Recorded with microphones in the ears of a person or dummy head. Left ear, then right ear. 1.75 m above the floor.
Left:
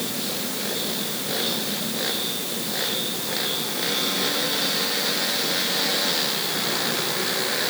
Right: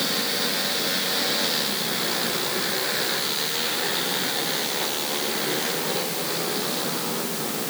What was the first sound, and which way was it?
Only background noise.